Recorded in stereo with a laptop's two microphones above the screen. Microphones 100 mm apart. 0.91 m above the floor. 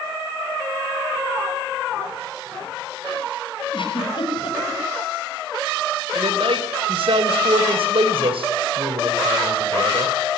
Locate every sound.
3.7 s a giggle: 60° left (ahead or behind), 5.5 m
6.1 s a man speaking: 70° right (ahead or behind), 3.5 m